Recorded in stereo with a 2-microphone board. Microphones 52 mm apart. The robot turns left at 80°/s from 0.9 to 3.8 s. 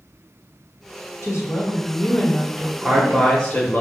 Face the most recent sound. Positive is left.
turn(degrees=125)